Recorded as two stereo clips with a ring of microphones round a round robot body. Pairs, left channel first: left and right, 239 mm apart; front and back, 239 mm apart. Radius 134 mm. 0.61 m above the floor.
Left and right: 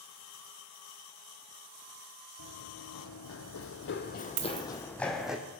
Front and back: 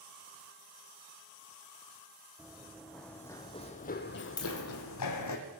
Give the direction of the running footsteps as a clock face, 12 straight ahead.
9 o'clock.